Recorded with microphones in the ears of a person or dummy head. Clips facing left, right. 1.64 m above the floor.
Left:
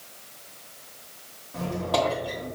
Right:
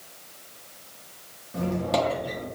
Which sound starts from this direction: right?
A squeak, at 1.5 s.